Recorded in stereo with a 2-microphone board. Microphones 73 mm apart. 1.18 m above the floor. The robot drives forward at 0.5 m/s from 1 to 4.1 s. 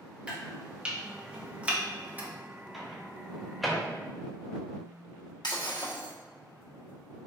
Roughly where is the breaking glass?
Left.